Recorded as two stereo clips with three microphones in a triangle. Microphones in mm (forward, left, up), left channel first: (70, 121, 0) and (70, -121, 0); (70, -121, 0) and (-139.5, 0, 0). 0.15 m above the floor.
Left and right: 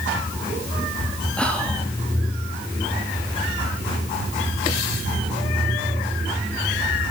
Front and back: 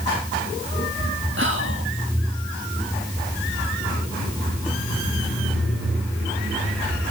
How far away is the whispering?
About 2 m.